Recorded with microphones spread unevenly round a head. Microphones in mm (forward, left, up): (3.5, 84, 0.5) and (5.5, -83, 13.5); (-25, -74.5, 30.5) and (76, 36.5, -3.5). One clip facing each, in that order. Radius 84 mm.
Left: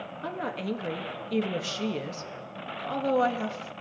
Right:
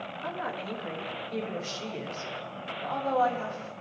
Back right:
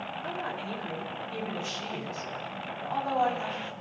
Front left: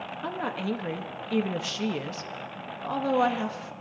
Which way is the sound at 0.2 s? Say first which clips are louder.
Left 4 dB, front left 6 dB; 40° left.